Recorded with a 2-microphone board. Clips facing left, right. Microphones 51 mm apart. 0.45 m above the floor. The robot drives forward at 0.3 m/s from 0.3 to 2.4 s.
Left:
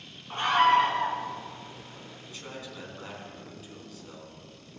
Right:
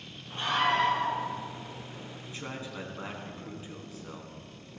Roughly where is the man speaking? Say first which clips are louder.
Right 2 dB; right.